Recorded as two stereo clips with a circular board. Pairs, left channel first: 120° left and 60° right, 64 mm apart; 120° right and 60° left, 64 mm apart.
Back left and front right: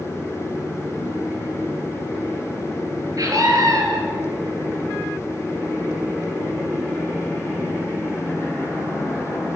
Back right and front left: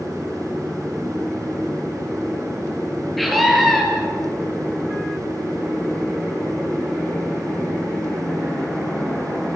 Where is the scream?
30° right, 7 m.